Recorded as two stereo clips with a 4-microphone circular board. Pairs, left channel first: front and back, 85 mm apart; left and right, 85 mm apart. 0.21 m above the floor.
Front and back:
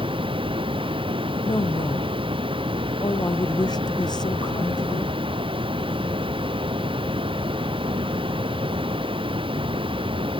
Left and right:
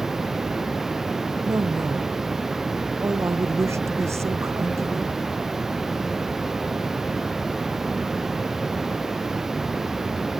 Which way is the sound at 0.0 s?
175° right.